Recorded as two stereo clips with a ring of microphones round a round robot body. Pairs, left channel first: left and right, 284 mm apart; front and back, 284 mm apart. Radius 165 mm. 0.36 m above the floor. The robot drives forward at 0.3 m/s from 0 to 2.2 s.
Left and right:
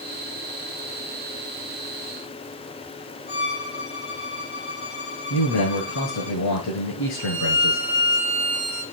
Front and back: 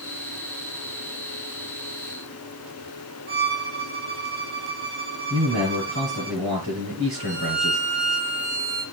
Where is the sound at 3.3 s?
160° left, 4.5 m.